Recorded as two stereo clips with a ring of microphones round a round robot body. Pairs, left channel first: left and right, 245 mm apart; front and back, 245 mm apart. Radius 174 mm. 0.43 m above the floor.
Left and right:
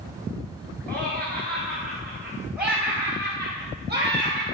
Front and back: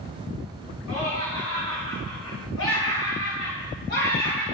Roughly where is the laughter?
Ahead.